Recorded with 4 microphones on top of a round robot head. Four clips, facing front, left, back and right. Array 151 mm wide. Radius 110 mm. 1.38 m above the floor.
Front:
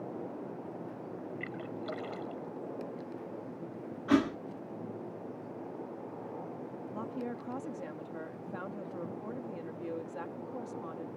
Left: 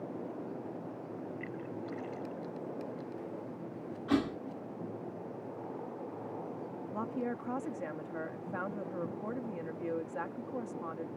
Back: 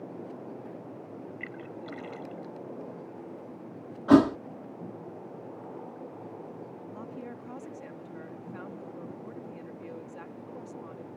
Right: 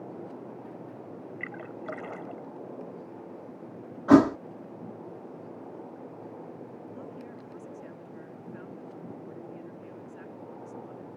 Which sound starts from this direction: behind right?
A thud, at 4.1 s.